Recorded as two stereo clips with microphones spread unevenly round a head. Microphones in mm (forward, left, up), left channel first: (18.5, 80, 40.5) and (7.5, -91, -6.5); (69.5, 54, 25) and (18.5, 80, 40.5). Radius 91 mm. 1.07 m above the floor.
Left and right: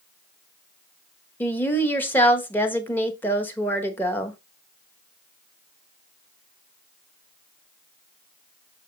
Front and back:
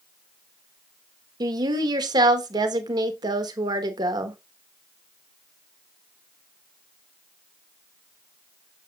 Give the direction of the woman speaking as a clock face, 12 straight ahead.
6 o'clock.